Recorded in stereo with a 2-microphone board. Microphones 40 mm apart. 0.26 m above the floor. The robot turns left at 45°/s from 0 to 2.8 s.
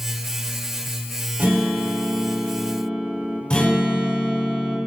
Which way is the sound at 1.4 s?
105° right.